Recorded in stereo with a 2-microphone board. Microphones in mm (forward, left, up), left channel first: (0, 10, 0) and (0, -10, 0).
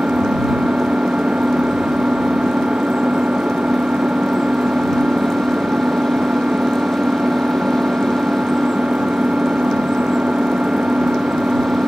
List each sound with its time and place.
0.0 s an engine running: 70° right (ahead or behind)